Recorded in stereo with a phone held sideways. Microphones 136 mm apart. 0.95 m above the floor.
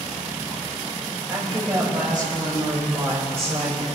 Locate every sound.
1.3 s a woman speaking: 25° right (ahead or behind), 6 m; by 3.9 s 50° right (ahead or behind), 5.5 m